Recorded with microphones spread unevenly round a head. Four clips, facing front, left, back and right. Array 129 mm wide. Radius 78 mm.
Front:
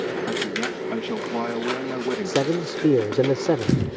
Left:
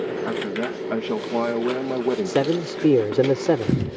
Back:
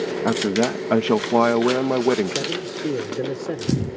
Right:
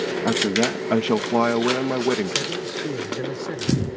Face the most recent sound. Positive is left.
turn(degrees=70)